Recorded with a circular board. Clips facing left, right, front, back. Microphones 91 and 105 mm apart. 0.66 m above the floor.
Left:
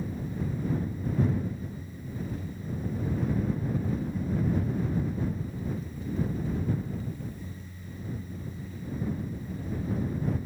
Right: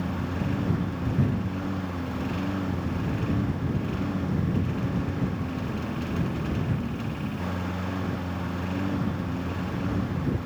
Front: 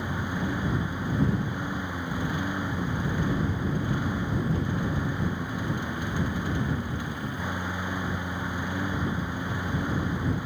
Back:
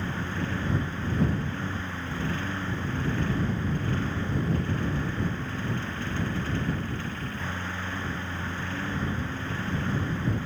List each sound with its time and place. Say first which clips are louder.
0.0 s a lawn mower: right 4 dB, front 1 dB; 75° right